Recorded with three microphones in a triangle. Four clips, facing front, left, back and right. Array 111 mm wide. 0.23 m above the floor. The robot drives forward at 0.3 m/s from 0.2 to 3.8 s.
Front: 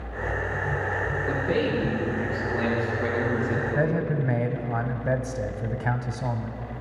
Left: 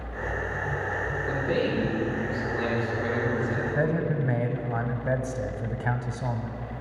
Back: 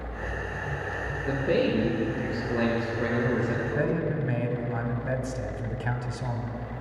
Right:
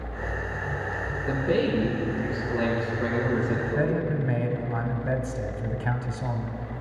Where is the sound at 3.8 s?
30° left, 1.0 m.